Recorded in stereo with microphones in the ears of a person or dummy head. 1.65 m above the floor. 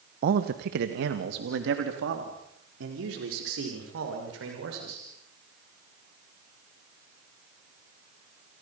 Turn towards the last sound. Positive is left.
turn(degrees=-85)